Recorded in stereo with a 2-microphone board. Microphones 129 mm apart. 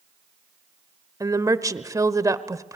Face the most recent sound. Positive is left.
turn(degrees=-25)  # may be behind; listen again after turning